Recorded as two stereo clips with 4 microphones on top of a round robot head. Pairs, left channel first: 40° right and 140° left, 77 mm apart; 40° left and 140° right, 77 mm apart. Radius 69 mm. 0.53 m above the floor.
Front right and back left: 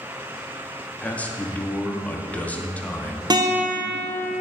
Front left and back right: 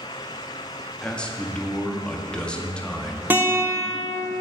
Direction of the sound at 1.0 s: 15° right.